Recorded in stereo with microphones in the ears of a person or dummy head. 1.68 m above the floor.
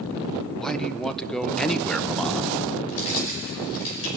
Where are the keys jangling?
70° left (ahead or behind), 5.5 m.